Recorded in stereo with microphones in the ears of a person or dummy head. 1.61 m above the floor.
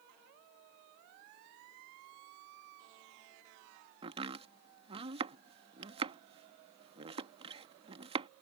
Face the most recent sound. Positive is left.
turn(degrees=-30)  # may be behind; listen again after turning